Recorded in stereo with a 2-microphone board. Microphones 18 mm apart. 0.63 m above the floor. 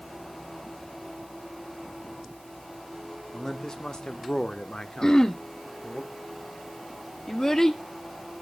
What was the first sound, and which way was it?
A man speaking, 40° left (ahead or behind).